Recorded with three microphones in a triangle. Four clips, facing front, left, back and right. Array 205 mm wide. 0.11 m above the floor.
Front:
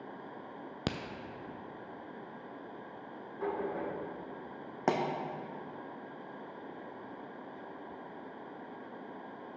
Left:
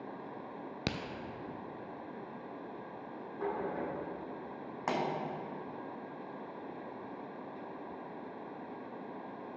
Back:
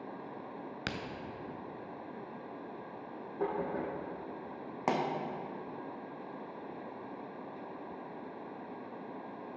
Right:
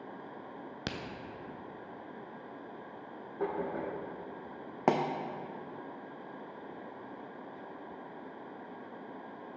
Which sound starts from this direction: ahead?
A crack, at 0.9 s.